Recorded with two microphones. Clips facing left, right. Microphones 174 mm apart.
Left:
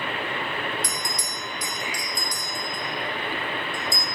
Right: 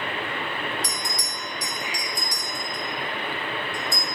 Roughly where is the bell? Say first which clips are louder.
Even; right.